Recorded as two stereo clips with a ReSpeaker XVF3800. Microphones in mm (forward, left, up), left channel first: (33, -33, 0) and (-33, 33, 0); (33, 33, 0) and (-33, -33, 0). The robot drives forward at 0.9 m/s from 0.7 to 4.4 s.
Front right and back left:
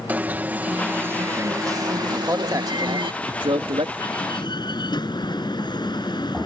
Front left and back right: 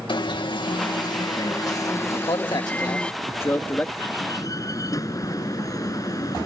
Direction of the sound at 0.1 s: 65° left.